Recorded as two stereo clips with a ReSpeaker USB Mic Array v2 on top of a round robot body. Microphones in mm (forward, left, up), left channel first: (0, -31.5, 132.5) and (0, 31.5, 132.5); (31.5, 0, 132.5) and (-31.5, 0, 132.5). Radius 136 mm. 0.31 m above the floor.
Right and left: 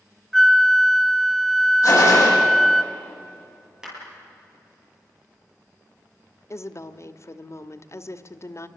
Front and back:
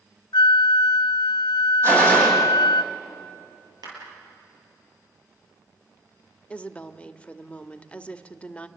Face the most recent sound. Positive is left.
turn(degrees=-65)